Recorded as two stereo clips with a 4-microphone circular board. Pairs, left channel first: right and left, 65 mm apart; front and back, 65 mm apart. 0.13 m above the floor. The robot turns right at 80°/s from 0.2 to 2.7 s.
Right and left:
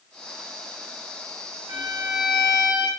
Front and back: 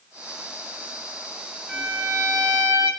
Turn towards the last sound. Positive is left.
turn(degrees=-175)